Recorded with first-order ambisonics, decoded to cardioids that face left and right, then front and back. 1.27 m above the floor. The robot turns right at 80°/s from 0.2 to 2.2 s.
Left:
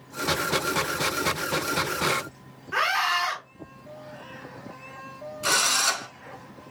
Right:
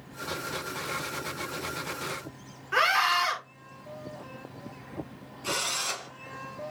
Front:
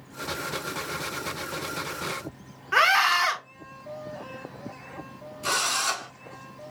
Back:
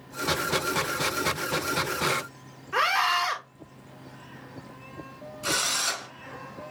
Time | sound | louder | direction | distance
2.7 | a scream | even, front 4 dB | 5° right | 3 m
5.4 | a drill | left 8 dB, front 1 dB | 90° left | 4.5 m